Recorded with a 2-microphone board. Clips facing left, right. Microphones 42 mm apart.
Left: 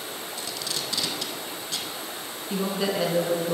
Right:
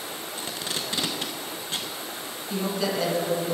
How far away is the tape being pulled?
About 0.6 m.